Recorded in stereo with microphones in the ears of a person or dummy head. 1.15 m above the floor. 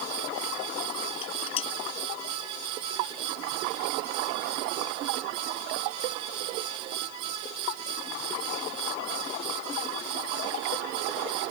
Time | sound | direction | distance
1.2 | dishes clattering | 30° left (ahead or behind) | ?